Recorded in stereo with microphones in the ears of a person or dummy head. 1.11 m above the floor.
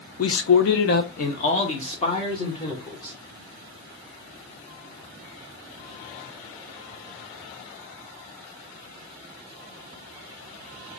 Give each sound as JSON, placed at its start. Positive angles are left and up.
{"t": 0.2, "sound": "a man speaking", "side_deg": 75, "distance_m": 0.8}